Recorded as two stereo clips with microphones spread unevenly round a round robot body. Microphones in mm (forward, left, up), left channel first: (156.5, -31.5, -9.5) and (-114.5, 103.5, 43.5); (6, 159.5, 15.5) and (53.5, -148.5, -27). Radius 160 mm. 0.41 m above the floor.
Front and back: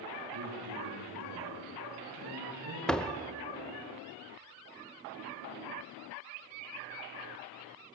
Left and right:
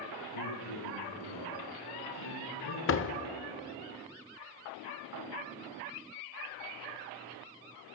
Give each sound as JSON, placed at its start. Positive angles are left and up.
{"t": 0.3, "sound": "a man speaking", "azimuth_deg": 115, "distance_m": 7.5}
{"t": 2.9, "sound": "a door slam", "azimuth_deg": 50, "distance_m": 0.9}